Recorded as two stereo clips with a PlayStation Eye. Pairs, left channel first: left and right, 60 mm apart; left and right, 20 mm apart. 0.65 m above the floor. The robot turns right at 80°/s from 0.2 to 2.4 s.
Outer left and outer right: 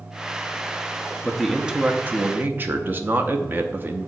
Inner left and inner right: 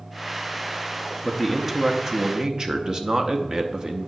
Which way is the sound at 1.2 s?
170° left.